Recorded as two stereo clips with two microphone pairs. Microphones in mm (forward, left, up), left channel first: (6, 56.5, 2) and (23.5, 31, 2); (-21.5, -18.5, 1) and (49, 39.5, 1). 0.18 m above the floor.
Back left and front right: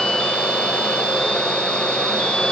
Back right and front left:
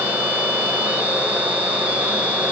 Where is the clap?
No clap in this recording.